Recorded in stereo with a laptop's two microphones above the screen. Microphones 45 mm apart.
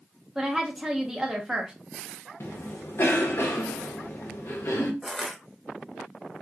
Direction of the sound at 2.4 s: 65° left (ahead or behind).